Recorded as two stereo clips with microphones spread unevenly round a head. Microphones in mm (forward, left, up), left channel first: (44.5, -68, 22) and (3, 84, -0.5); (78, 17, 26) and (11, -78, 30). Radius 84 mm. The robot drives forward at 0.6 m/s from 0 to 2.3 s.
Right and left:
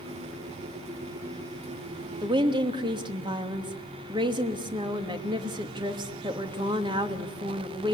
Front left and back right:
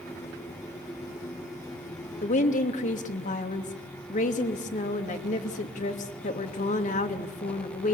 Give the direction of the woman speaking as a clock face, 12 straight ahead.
11 o'clock.